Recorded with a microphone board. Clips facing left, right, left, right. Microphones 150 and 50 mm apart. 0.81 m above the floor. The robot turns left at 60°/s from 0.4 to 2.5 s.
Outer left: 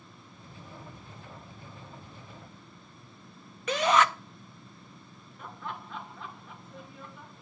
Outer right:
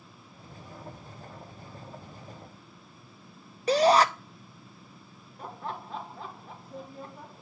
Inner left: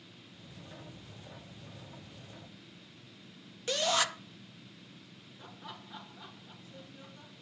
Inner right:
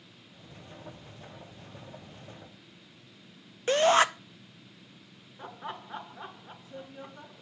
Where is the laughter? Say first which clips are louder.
Outer right 3 dB, inner right 8 dB; 35° right (ahead or behind), 0.5 m.